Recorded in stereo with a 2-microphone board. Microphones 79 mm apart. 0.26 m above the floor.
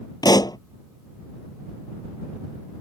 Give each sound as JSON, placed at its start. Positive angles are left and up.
{"t": 0.2, "sound": "a pop", "side_deg": 55}